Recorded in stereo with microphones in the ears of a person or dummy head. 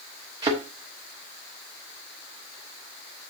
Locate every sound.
0.4 s a thud: 25° right (ahead or behind), 1.2 m